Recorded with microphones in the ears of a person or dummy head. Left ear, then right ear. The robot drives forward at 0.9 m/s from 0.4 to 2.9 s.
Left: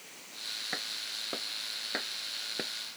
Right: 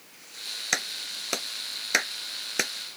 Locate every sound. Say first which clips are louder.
0.7 s a clap: right 6 dB; 70° right (ahead or behind); by 3.0 s 65° right (ahead or behind)